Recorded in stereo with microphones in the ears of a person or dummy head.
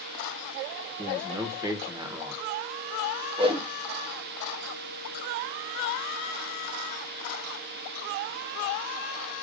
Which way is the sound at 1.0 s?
25° right (ahead or behind).